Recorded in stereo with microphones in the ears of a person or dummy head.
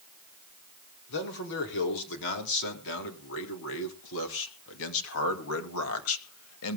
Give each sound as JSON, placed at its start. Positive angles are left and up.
{"t": 1.1, "sound": "a man speaking", "side_deg": 60, "distance_m": 4.5}